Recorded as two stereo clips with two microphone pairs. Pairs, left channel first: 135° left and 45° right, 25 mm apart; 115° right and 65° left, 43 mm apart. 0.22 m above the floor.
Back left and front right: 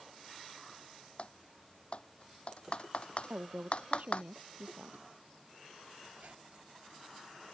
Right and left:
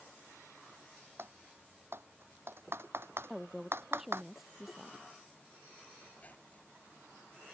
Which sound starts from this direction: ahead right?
A squeak, at 6.1 s.